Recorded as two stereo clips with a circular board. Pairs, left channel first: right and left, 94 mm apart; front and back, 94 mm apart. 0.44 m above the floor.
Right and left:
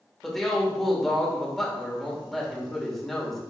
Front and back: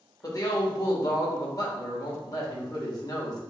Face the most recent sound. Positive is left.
turn(degrees=-5)